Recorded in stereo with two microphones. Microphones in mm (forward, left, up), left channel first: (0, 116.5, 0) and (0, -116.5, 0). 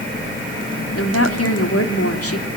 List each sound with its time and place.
0.9 s a woman speaking: 80° left, 3 m